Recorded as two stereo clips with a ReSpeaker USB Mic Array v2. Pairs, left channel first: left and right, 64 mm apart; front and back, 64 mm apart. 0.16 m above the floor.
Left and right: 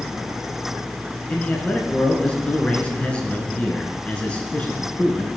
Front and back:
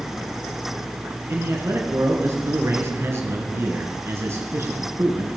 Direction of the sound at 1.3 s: 155° left.